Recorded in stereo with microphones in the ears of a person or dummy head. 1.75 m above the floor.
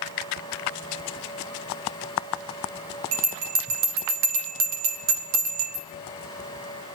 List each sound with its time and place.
3.1 s a bell: 75° right (ahead or behind), 1.3 m